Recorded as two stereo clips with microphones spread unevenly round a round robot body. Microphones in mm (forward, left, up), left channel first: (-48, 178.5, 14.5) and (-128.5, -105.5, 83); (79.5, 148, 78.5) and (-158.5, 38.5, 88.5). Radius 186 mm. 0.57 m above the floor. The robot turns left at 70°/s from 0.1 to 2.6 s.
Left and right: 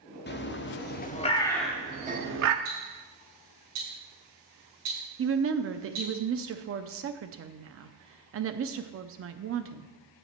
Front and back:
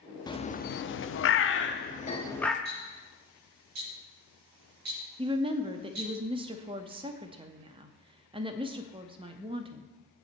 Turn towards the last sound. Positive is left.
turn(degrees=-105)